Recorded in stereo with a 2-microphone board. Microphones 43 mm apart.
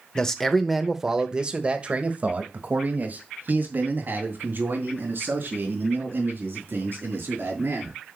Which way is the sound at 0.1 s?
20° left (ahead or behind).